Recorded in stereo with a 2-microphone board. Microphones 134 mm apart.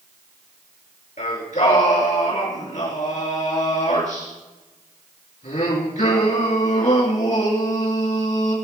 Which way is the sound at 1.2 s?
70° left (ahead or behind).